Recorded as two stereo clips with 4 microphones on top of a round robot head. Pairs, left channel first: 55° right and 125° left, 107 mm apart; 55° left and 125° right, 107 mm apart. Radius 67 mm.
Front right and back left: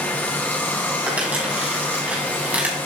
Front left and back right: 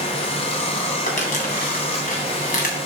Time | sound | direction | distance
0.0 | running water | 15° left | 1.3 m
1.1 | crumpling | 45° left | 2.5 m